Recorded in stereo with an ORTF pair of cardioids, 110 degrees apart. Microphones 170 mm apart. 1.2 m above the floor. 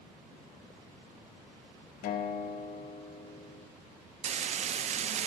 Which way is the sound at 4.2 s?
40° right.